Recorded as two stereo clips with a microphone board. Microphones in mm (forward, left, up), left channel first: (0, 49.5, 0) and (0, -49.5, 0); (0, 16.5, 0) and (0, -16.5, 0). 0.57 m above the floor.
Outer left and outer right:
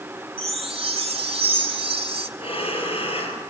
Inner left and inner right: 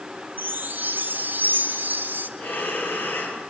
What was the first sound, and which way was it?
A chime, 70° right (ahead or behind).